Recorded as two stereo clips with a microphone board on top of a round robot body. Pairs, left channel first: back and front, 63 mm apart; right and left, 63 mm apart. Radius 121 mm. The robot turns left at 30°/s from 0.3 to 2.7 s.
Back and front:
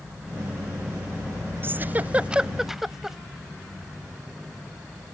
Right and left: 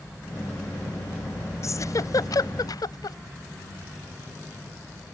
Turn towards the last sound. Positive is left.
turn(degrees=-85)